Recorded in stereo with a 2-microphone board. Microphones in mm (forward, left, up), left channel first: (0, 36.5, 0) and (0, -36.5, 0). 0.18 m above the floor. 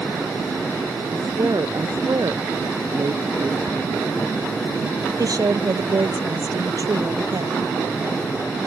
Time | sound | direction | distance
1.1 | a woman speaking | 55° right (ahead or behind) | ?
3.7 | ticking | 50° right (ahead or behind) | ?
5.2 | a woman speaking | 60° right (ahead or behind) | ?